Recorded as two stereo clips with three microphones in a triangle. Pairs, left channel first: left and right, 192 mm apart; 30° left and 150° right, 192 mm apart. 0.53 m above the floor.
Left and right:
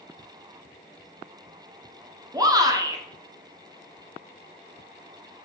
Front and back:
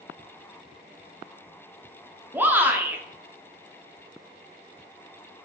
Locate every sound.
2.3 s a shout: 90° right, 0.6 m